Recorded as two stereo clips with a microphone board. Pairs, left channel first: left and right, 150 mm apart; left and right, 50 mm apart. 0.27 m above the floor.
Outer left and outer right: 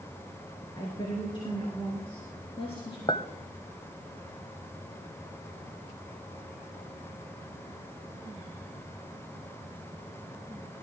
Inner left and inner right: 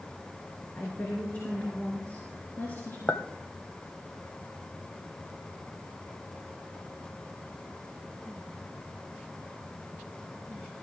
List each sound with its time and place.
0.8 s a woman speaking: 30° left (ahead or behind), 3.5 m; by 3.0 s 40° left (ahead or behind), 2.5 m
3.1 s a clink: 35° left (ahead or behind), 0.9 m